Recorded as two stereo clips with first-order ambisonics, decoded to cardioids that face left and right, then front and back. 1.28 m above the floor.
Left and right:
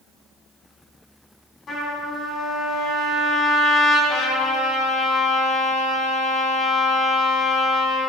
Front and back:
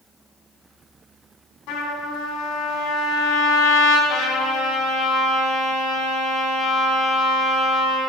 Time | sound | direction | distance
1.7 | a trumpet | 25° left | 4 m
4.1 | a trumpet | 45° left | 4 m